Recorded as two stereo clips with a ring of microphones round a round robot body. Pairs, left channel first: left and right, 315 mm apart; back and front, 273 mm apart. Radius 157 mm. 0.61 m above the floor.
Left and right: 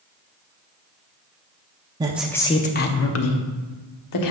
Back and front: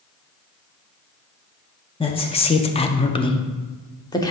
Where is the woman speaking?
145° right, 0.5 m; by 4.3 s 105° left, 1.2 m.